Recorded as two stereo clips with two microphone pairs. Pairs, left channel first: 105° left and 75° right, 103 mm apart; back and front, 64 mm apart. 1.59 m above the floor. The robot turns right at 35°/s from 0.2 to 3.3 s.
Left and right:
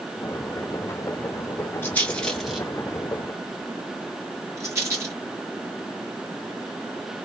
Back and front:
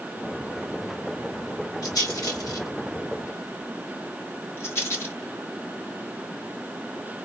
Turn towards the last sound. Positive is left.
turn(degrees=-135)